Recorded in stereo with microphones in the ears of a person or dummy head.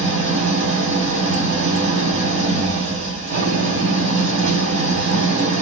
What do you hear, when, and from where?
0.0 s an engine running: 60° right (ahead or behind), 4 m